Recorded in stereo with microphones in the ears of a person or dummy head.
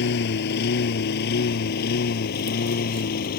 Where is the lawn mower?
60° left (ahead or behind); by 3.4 s 55° left (ahead or behind).